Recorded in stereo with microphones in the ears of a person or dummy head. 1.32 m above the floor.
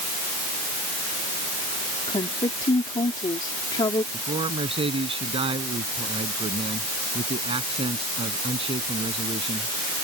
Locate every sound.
2.1 s a woman speaking: 25° left (ahead or behind)
4.1 s a man speaking: 30° right (ahead or behind)